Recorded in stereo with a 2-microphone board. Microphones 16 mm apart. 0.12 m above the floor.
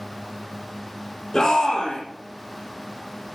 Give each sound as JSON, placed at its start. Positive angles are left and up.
{"t": 1.3, "sound": "a shout", "side_deg": 30, "distance_m": 4.5}